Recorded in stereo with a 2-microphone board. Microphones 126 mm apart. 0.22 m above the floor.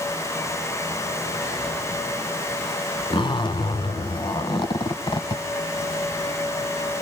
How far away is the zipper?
About 1.0 m.